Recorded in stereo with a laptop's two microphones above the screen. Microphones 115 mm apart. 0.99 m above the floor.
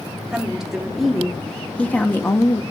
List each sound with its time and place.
0.3 s a woman speaking: 5° right (ahead or behind), 2 m; by 2.6 s 35° left (ahead or behind), 0.9 m